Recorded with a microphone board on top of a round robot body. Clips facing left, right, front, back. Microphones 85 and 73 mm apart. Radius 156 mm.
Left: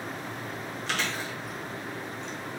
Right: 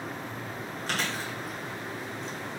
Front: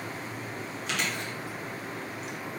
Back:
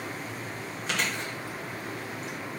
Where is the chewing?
130° right, 1.5 m.